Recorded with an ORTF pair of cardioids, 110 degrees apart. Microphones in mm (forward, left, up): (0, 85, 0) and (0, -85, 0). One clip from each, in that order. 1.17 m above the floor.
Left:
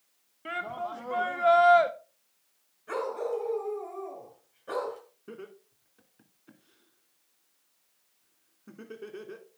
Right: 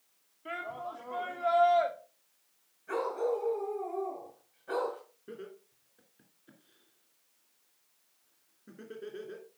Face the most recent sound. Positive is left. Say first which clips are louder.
# left 1 dB
turn(degrees=30)